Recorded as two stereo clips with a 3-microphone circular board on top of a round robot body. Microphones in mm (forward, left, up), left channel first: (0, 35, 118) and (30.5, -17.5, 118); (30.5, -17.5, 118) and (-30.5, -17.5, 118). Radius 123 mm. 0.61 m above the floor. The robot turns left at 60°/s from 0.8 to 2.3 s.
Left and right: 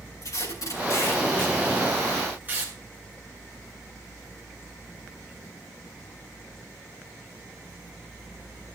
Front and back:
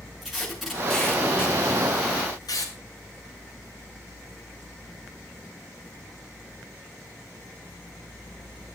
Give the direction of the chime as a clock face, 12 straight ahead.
No chime in this recording.